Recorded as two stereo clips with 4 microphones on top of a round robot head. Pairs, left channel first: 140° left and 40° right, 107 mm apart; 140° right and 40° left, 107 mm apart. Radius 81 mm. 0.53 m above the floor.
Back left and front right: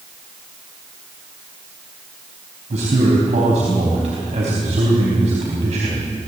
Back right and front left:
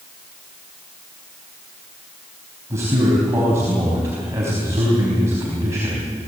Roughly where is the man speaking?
Ahead right.